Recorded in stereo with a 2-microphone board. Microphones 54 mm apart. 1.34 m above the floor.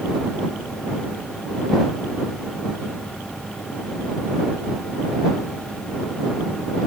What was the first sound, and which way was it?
Only background noise.